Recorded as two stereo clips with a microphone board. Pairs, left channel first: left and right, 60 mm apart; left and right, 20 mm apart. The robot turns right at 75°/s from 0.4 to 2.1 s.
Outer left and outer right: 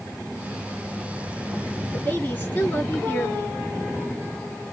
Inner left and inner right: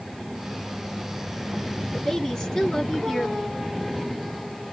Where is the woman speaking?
35° left (ahead or behind), 1.7 m; by 3.6 s 25° left (ahead or behind), 1.7 m.